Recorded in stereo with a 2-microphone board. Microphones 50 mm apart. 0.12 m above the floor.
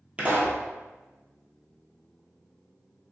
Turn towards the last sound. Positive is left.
turn(degrees=-25)  # may be behind; listen again after turning